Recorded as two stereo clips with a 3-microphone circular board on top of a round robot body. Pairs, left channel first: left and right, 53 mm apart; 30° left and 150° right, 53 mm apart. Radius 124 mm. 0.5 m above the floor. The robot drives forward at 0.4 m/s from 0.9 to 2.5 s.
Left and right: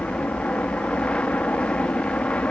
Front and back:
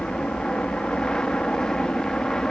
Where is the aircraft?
75° left; by 2.5 s 85° left.